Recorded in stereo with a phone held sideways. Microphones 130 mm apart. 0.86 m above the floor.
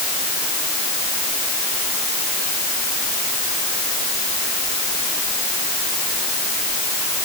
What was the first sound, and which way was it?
Only background noise.